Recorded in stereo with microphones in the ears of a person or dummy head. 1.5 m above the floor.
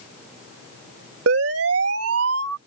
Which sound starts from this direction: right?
A siren, at 1.3 s.